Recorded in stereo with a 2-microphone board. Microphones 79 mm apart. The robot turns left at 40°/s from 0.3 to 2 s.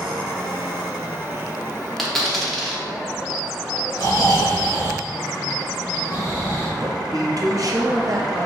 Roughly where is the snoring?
Left.